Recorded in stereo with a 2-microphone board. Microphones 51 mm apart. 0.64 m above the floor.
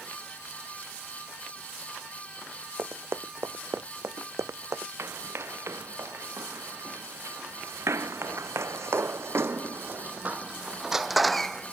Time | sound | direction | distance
2.8 | running footsteps | 55° right (ahead or behind) | ?
5.0 | running footsteps | 65° right (ahead or behind) | ?